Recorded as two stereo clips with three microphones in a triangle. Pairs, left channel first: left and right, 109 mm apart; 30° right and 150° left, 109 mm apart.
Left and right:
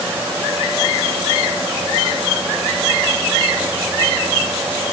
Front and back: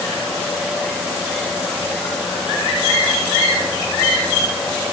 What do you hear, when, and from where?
Only background noise.